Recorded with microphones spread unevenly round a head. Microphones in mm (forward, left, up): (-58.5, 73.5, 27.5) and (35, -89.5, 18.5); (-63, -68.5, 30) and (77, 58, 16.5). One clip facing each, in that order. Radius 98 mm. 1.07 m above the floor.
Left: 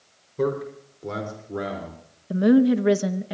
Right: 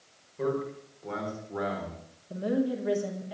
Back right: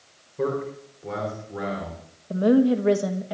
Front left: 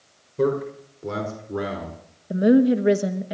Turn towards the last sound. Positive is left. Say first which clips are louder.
# left 11 dB, front left 2 dB
turn(degrees=110)